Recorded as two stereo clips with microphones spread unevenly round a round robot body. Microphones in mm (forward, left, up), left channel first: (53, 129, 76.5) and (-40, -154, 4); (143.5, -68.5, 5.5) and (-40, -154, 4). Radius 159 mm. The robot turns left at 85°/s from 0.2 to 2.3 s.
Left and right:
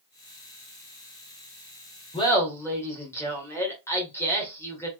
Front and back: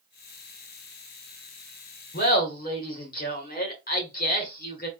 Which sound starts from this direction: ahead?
Laughter, at 2.1 s.